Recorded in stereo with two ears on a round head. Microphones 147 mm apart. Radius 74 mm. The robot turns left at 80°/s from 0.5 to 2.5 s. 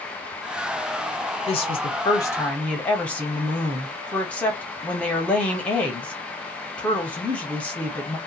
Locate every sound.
1.5 s a woman speaking: 100° left, 0.9 m; by 8.2 s 15° left, 0.9 m